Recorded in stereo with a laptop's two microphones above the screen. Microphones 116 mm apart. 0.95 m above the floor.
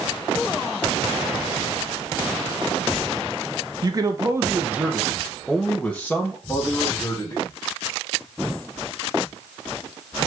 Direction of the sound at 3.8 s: 35° right (ahead or behind).